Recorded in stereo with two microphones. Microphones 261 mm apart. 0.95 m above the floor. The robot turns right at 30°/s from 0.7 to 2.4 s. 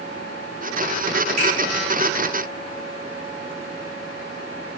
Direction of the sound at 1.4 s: 80° right.